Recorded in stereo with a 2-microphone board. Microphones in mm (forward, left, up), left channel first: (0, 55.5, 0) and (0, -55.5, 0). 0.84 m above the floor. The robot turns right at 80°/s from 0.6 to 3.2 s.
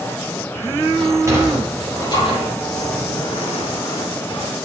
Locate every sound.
1.0 s a sliding door: 50° right (ahead or behind), 7.5 m; by 4.5 s 55° left (ahead or behind), 7.5 m